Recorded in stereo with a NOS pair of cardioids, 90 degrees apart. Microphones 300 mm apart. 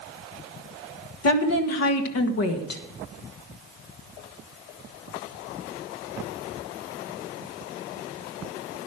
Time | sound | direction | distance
1.2 | a woman speaking | 55° left | 1.7 m